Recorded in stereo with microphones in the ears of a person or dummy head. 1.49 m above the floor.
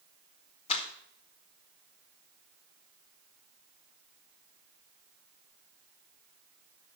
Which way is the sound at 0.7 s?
35° left (ahead or behind).